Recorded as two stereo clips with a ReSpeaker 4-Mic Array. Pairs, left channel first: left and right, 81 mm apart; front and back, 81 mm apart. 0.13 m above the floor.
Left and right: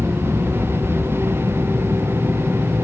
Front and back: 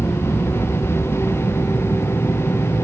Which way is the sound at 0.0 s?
15° right.